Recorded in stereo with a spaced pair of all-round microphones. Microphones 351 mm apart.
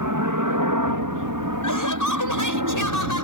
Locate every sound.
0.0 s a helicopter: 60° right (ahead or behind); by 3.2 s 65° right (ahead or behind)
1.6 s laughter: 60° left (ahead or behind)